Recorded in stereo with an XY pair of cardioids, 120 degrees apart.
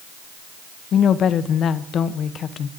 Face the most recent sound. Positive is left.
turn(degrees=50)